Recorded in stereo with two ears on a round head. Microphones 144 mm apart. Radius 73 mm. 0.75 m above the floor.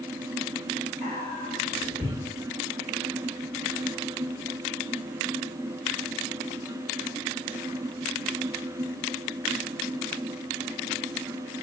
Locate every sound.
1.0 s whispering: 10° left (ahead or behind), 1.1 m